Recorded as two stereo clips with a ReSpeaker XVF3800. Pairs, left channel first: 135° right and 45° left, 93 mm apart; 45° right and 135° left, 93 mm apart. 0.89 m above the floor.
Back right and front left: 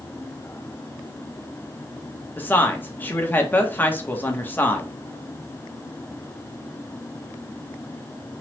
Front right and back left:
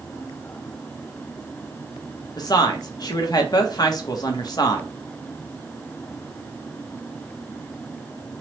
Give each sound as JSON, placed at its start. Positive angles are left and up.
{"t": 2.4, "sound": "a woman speaking", "azimuth_deg": -70, "distance_m": 0.7}